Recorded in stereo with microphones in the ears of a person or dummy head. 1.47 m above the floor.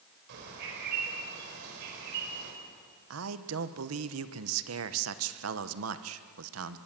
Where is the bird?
65° right (ahead or behind), 5 m.